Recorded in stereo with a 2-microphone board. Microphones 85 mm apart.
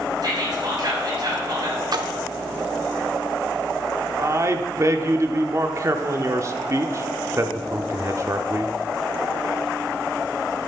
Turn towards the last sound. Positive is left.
turn(degrees=-35)  # may be behind; listen again after turning